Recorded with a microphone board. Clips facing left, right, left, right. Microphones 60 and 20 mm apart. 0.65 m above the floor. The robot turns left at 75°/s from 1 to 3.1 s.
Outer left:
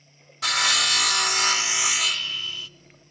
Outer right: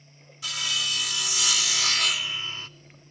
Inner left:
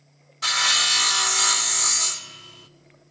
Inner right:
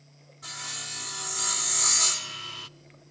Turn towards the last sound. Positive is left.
turn(degrees=-80)